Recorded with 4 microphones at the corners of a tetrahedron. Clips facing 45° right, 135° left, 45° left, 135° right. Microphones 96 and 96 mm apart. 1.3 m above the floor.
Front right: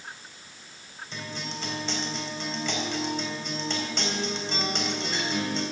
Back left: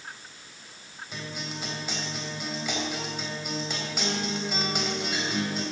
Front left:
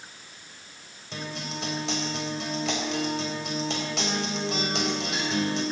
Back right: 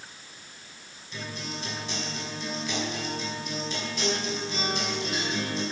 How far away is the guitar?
About 3.5 m.